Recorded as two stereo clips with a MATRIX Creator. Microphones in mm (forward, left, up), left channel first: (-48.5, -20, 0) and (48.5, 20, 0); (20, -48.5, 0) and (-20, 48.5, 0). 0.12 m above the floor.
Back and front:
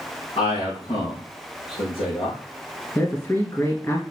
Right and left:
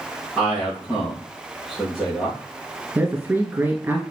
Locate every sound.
0.4 s a man speaking: 165° right, 4.5 m
3.0 s a man speaking: 165° left, 1.4 m